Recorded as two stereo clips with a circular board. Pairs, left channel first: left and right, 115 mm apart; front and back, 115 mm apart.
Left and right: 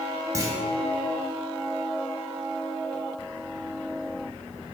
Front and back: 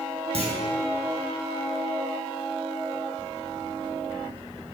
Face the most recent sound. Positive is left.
turn(degrees=-150)